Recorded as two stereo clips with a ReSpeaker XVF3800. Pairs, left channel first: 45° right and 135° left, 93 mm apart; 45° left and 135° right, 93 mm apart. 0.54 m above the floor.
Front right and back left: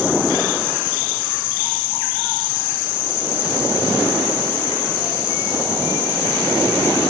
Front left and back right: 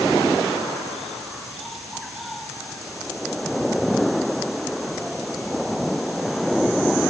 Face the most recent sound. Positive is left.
No sound to turn to.